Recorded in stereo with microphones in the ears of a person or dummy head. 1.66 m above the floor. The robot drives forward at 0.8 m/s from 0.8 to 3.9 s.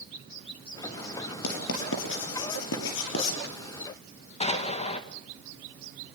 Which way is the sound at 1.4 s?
75° left (ahead or behind).